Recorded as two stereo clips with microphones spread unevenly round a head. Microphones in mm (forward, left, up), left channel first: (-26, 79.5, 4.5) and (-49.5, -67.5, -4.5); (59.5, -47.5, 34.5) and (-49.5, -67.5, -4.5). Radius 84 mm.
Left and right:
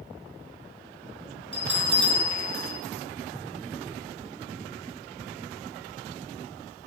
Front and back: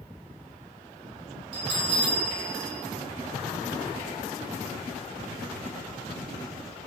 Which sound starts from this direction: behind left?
A bell, at 1.5 s.